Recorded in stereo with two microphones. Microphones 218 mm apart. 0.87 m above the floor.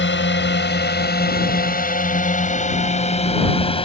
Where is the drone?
60° left (ahead or behind); by 3.9 s 25° left (ahead or behind).